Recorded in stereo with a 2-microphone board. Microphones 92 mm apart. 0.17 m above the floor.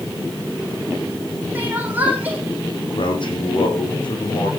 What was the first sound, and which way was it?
Crying, 15° right (ahead or behind).